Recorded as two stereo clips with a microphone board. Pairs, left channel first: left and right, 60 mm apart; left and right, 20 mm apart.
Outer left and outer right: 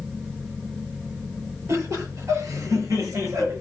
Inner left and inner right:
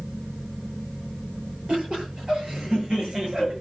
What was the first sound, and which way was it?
Laughter, 60° right (ahead or behind).